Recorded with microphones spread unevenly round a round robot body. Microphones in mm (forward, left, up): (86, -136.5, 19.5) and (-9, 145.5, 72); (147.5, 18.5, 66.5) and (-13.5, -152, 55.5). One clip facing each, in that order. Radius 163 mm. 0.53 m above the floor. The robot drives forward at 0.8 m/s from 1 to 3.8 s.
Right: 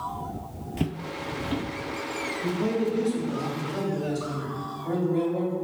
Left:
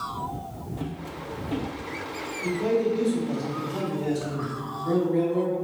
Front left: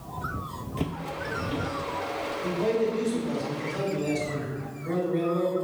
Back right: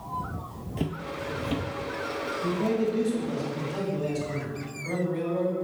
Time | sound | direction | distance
0.8 | footsteps | 45° right | 0.6 m
2.4 | a man speaking | 165° right | 2.5 m